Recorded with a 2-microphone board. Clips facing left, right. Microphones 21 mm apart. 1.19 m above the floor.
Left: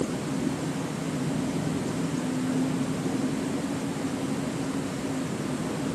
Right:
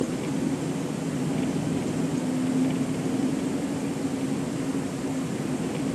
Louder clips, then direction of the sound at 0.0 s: Right 1 dB; 85° right.